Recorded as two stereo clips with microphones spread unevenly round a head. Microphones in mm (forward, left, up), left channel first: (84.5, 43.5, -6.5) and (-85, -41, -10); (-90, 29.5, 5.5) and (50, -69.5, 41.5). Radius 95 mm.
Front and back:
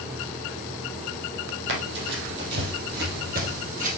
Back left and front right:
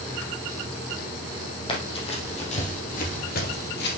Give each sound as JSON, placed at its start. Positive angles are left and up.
{"t": 1.7, "sound": "running footsteps", "azimuth_deg": -150, "distance_m": 3.0}